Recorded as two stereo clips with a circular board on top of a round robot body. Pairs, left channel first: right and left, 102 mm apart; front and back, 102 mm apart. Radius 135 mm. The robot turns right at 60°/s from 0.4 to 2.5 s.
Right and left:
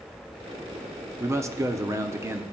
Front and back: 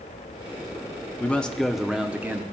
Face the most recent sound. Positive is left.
turn(degrees=135)